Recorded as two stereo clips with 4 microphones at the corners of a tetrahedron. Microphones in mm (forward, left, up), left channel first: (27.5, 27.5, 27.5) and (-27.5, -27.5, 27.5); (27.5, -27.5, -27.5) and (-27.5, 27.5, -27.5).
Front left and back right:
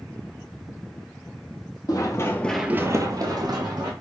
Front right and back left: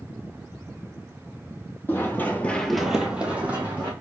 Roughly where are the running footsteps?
Ahead.